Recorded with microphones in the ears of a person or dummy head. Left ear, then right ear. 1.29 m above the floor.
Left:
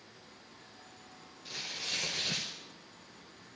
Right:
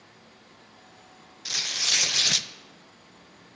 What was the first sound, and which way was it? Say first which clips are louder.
Tearing paper: right 12 dB; 55° right (ahead or behind).